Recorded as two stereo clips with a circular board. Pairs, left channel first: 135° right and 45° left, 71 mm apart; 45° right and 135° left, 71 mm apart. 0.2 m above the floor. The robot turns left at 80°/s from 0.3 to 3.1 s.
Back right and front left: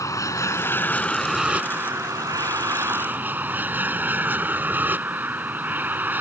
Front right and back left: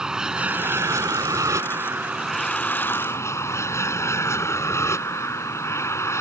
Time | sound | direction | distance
0.0 | an aircraft | 145° right | ?